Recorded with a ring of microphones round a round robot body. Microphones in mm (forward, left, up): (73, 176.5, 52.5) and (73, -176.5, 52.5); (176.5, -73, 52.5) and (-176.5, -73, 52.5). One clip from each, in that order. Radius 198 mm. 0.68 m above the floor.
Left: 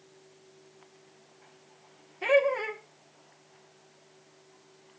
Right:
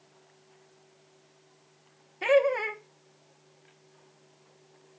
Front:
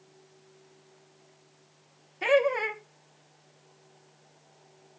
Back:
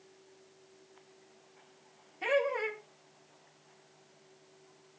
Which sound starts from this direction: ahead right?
Laughter, at 2.2 s.